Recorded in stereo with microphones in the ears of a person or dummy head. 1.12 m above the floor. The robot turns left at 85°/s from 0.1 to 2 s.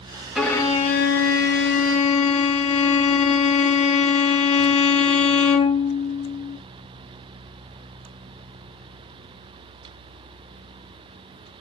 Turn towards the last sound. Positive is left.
turn(degrees=40)